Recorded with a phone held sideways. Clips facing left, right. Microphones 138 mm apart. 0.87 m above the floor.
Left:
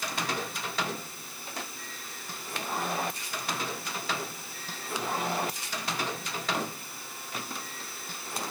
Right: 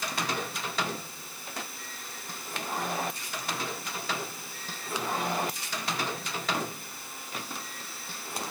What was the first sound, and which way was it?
Only background noise.